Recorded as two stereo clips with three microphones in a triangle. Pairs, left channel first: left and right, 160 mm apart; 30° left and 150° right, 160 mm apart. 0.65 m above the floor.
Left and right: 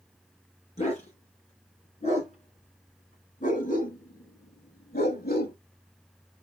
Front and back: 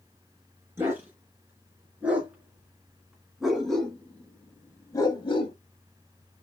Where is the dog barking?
135° left, 3.5 m; by 5.5 s 75° left, 1.0 m.